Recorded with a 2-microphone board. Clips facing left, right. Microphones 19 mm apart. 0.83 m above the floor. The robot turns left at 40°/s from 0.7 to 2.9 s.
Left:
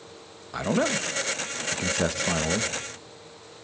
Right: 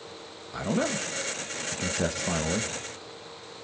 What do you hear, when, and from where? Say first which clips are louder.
0.5 s a man speaking: left 3 dB; 30° left (ahead or behind), 0.9 m; by 2.7 s 10° left (ahead or behind), 0.9 m